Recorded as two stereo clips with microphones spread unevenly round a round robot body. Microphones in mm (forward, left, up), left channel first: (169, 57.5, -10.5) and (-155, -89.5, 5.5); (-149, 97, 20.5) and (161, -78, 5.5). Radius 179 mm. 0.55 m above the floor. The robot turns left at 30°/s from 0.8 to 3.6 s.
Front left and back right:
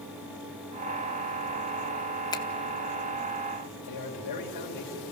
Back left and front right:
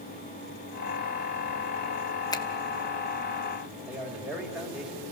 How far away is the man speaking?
About 2.5 m.